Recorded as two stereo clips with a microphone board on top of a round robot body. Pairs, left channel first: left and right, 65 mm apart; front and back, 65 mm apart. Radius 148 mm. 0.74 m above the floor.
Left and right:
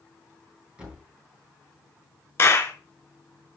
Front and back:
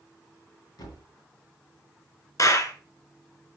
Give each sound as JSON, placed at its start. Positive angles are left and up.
{"t": 0.8, "sound": "a thud", "azimuth_deg": -20, "distance_m": 3.0}
{"t": 2.4, "sound": "a clap", "azimuth_deg": 35, "distance_m": 1.6}